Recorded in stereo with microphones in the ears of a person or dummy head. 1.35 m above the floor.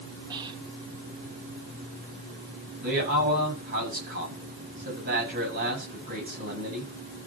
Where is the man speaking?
60° right (ahead or behind), 8 m.